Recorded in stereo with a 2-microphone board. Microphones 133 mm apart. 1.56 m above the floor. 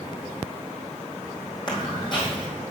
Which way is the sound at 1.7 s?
35° left (ahead or behind).